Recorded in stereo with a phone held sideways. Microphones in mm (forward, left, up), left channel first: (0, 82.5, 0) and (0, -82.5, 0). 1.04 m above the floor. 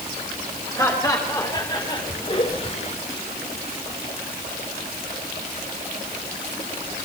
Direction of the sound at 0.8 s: 20° left (ahead or behind).